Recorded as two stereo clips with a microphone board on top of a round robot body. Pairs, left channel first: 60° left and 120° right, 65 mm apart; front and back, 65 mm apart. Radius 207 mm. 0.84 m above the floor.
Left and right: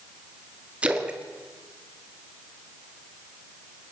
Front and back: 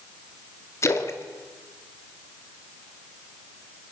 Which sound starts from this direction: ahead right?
A splash, at 0.8 s.